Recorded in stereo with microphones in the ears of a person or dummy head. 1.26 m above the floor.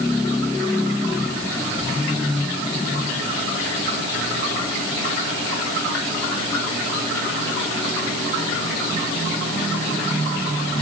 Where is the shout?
I don't hear a shout.